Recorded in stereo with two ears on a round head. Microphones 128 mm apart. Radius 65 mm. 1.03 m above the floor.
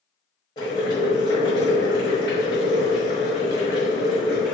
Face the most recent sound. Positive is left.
turn(degrees=30)  # may be behind; listen again after turning